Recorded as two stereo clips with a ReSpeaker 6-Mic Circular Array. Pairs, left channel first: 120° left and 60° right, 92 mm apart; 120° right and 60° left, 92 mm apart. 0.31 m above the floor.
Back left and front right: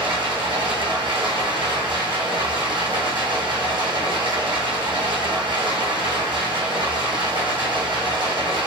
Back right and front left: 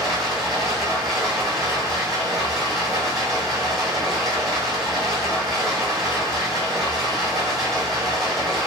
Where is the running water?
30° right, 1.9 m.